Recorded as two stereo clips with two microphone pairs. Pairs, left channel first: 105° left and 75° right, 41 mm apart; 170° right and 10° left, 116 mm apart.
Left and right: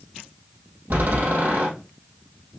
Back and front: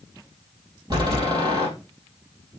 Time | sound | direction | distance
0.9 | a door slam | 40° right | 3.5 m